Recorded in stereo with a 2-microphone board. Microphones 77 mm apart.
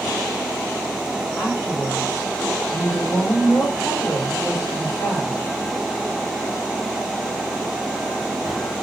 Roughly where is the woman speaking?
Left.